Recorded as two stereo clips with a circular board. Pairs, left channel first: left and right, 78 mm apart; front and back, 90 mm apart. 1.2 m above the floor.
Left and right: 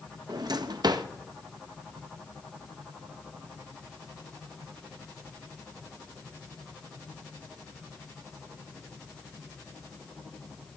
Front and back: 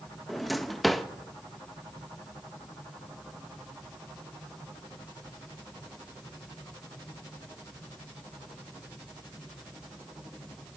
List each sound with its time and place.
0.3 s a drawer: 90° right, 0.6 m